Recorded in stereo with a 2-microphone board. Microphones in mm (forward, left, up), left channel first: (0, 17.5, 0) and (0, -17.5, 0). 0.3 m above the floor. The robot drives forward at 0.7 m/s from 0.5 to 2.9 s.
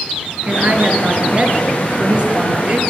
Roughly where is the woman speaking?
Right.